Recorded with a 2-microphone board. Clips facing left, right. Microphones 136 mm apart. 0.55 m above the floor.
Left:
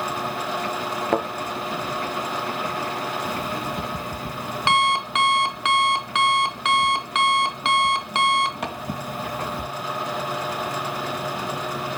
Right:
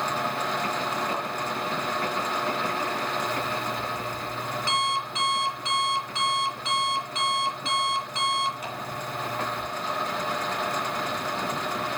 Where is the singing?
No singing in this recording.